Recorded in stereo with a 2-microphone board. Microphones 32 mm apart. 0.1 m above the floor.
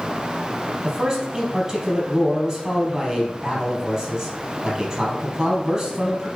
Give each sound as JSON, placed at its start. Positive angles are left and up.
{"t": 0.8, "sound": "a man speaking", "side_deg": -20, "distance_m": 3.5}